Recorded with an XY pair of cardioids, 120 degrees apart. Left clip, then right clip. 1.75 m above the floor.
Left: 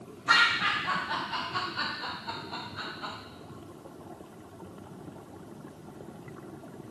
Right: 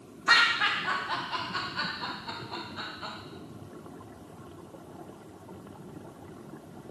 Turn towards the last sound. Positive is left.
turn(degrees=-10)